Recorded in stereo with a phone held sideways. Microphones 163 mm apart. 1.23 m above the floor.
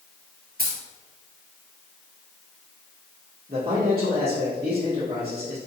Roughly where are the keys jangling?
Right.